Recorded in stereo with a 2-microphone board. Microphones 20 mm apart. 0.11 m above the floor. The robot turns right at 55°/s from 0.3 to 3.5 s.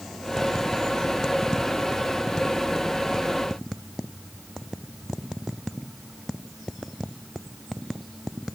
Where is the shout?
I don't hear a shout.